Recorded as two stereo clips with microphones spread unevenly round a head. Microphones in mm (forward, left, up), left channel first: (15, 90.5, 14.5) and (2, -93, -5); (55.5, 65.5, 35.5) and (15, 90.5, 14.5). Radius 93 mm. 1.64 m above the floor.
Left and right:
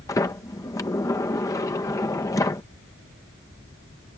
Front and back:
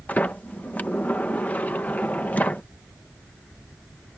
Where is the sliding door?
15° left.